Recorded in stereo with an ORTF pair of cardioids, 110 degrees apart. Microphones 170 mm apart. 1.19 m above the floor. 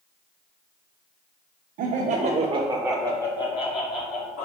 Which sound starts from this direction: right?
Laughter, at 1.8 s.